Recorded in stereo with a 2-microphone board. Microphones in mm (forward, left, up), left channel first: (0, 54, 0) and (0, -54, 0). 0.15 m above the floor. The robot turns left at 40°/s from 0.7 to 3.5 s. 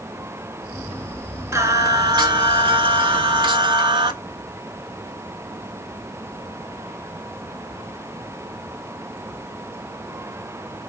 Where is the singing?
35° right, 0.6 m; by 4.1 s 115° right, 0.6 m.